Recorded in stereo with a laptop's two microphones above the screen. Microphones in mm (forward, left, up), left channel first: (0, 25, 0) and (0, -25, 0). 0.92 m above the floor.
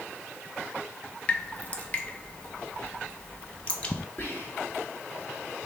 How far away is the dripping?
About 0.7 m.